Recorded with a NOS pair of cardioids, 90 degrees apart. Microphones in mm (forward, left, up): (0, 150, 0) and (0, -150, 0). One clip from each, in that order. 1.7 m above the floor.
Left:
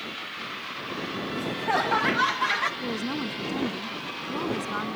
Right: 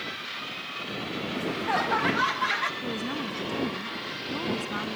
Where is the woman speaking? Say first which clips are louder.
Left 1 dB; 15° left.